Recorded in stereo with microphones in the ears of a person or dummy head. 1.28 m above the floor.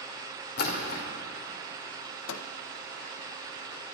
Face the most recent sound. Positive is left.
turn(degrees=65)  # may be behind; listen again after turning